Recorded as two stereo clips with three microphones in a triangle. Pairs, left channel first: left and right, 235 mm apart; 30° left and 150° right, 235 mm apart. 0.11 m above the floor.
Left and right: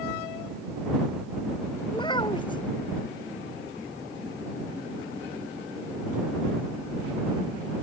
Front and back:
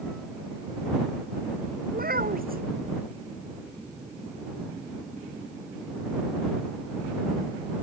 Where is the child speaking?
160° left.